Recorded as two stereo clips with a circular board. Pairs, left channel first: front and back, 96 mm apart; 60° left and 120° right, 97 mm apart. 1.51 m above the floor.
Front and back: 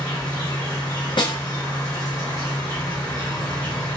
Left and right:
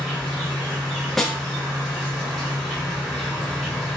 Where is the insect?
30° right, 1.5 m.